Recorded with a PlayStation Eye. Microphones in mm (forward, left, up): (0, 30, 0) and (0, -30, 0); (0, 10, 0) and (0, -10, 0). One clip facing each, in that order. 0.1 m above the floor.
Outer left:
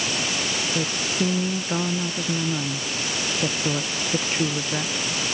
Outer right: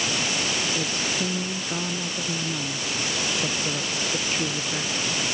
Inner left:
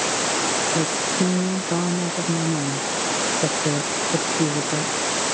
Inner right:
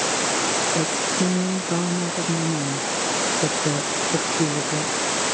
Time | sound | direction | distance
0.8 | a woman speaking | 15° left (ahead or behind) | ?